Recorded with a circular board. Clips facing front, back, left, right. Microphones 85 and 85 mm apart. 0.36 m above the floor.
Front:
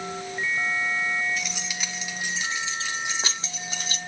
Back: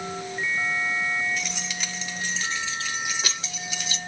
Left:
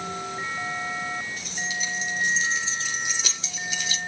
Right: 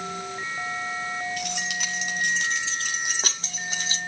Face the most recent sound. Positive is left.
turn(degrees=-40)